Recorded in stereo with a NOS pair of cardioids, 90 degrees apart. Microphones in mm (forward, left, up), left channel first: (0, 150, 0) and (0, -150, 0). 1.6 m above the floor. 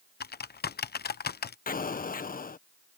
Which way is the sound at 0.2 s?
35° left.